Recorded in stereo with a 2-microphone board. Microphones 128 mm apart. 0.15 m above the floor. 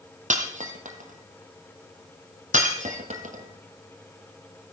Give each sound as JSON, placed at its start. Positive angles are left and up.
{"t": 0.3, "sound": "breaking glass", "side_deg": -75, "distance_m": 1.8}